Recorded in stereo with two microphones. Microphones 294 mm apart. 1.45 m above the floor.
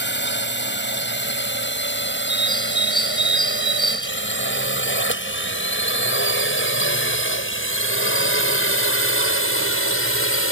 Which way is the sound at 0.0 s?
40° left (ahead or behind).